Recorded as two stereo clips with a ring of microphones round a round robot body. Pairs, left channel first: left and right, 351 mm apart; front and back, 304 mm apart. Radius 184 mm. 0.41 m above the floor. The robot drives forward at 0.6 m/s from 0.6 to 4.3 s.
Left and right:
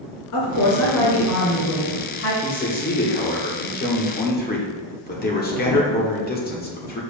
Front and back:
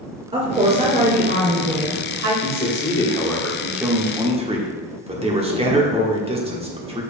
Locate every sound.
0.3 s a woman speaking: 110° left, 1.9 m; by 2.3 s 140° left, 2.5 m
2.4 s a man speaking: 40° left, 1.5 m; by 7.0 s 125° left, 1.3 m